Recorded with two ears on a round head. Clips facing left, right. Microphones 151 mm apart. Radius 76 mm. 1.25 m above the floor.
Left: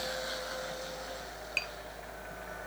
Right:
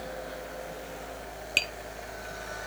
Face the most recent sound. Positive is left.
turn(degrees=-40)  # may be behind; listen again after turning